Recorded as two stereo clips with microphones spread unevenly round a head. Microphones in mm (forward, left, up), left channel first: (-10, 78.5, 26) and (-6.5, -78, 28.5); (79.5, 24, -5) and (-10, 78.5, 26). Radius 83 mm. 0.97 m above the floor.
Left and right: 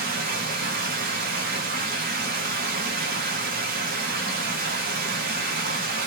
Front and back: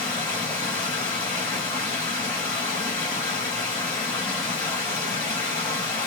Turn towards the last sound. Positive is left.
turn(degrees=-110)